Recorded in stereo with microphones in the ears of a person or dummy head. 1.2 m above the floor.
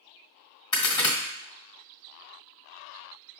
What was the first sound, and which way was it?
A crack, 25° left (ahead or behind).